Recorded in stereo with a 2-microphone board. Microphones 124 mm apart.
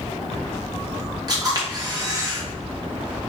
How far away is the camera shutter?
About 1.2 m.